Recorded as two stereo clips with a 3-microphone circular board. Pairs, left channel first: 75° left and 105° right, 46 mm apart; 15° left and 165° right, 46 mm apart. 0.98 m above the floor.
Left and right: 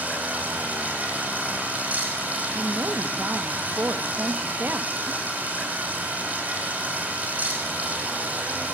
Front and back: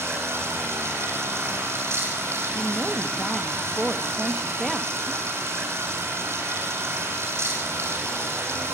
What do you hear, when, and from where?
0.0 s running water: 160° right, 8.5 m
2.5 s a woman speaking: 65° right, 1.6 m